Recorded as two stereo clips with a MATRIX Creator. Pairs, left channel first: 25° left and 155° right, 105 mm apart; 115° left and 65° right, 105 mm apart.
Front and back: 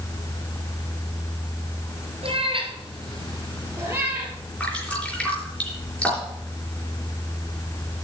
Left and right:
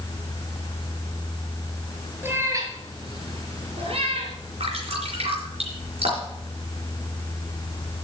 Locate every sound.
2.2 s a cat meowing: 135° right, 2.5 m; by 4.3 s 80° right, 3.5 m
4.6 s dripping: 55° right, 4 m